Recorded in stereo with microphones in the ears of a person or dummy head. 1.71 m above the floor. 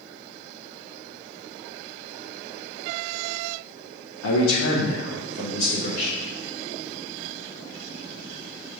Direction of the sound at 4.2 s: 90° left.